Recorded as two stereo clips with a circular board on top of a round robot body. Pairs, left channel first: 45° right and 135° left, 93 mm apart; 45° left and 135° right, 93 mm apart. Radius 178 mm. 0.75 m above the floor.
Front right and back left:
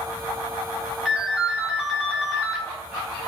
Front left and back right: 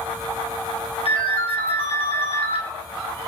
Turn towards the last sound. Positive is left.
turn(degrees=50)